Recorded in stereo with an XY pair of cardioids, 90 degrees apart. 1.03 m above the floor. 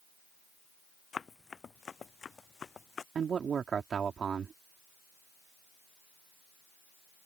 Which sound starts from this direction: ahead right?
A man speaking, at 3.1 s.